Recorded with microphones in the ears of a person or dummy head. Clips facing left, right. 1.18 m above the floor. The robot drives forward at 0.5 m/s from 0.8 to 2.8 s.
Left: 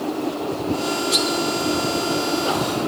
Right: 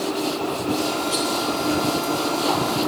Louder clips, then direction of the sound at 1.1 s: Left 2 dB; 30° left (ahead or behind).